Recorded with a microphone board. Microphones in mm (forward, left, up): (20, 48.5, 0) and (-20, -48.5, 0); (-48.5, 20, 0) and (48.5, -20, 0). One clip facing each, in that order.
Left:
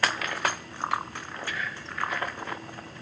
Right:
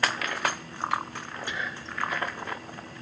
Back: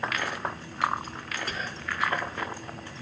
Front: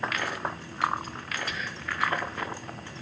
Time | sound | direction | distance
1.5 | whispering | 175° right | 0.6 m